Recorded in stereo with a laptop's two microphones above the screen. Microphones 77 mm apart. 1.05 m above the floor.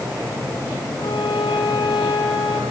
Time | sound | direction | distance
1.0 | a violin | 80° left | 5.5 m